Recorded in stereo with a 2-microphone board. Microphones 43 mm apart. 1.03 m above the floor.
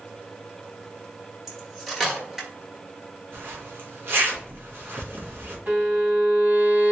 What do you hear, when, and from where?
1.5 s cutlery clinking: 5° right (ahead or behind), 1.3 m
3.3 s a zipper: 60° right (ahead or behind), 1.3 m
5.7 s a violin: 40° right (ahead or behind), 2.5 m